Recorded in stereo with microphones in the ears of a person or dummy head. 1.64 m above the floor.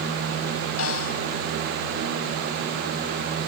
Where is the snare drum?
75° left (ahead or behind).